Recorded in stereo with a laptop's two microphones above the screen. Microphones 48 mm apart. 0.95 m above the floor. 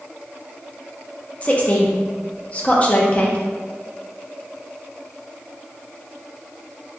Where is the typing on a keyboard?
I don't hear typing on a keyboard.